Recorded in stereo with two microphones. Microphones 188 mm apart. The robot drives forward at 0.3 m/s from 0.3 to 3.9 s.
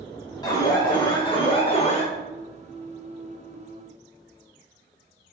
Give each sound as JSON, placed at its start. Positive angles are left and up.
{"t": 0.4, "sound": "an alarm", "side_deg": 20, "distance_m": 1.1}